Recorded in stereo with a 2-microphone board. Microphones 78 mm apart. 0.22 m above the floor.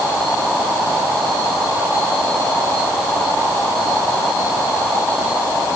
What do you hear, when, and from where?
Only background noise.